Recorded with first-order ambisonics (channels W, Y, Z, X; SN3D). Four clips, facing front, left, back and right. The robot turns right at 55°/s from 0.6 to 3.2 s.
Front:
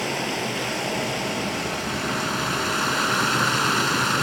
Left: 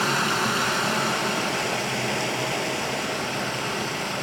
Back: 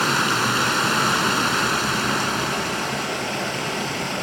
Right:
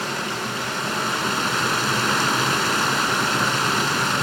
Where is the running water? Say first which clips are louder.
Left 3 dB, back 6 dB; 165° left, 1.9 m; by 4.2 s 50° right, 1.9 m.